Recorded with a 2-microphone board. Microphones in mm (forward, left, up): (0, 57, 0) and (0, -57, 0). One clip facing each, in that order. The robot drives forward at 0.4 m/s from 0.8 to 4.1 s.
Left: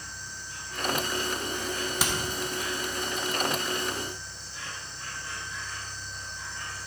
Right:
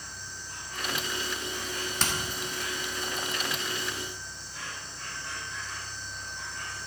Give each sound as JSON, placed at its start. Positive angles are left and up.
{"t": 0.0, "sound": "an insect", "side_deg": -55, "distance_m": 3.0}
{"t": 2.0, "sound": "hammering", "side_deg": 5, "distance_m": 1.3}